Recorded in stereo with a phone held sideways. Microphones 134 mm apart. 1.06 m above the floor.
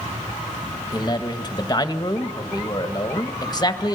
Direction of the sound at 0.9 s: 30° left (ahead or behind).